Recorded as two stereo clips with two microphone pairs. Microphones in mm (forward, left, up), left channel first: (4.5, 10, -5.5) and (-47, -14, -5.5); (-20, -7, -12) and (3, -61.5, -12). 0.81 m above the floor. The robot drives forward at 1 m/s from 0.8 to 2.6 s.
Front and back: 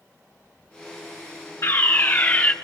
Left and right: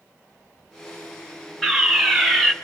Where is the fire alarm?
15° left, 2.5 m; by 2.5 s 30° left, 1.8 m.